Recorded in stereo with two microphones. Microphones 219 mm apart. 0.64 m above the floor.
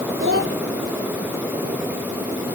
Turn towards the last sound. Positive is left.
turn(degrees=-65)  # may be behind; listen again after turning